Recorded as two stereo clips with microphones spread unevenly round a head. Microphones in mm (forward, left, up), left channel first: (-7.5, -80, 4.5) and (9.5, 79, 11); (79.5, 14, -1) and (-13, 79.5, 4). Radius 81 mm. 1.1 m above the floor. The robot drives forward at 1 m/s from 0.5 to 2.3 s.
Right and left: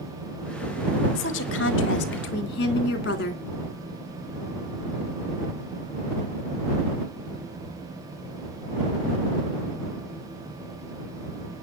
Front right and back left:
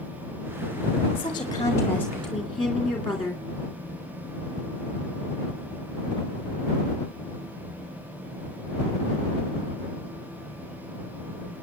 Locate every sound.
1.1 s a woman speaking: 95° right, 2 m; by 3.4 s 120° right, 2.5 m